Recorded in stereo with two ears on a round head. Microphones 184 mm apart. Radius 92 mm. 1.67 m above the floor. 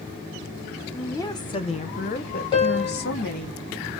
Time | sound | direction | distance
0.9 | a woman speaking | 10° left (ahead or behind) | 0.9 m
2.5 | a piano | 25° left (ahead or behind) | 2.5 m